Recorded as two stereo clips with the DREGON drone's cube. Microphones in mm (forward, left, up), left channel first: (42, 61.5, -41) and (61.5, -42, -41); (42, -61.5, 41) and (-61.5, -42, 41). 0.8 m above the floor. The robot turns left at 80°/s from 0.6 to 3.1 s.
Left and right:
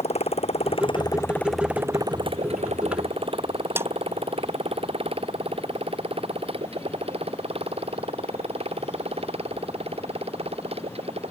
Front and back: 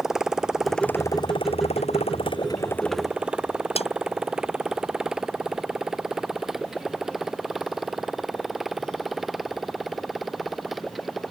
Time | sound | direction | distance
0.0 | a motorcycle | 85° left | ?
3.8 | a snare drum | 10° right | ?